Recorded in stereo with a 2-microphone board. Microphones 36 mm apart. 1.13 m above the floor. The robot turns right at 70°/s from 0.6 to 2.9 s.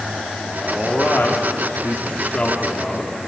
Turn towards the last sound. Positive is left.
turn(degrees=180)